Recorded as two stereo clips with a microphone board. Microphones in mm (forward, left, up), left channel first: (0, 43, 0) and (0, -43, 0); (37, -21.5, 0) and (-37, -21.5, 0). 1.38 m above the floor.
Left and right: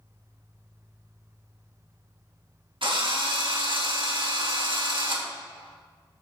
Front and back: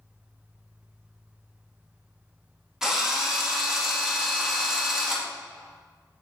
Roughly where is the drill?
Right.